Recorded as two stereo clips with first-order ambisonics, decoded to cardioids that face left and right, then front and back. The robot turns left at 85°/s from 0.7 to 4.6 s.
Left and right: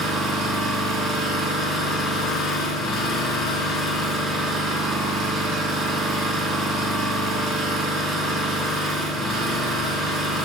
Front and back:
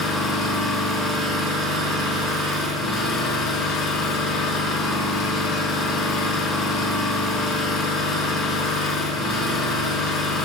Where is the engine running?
75° right, 1.2 m; by 10.4 s 50° right, 1.2 m.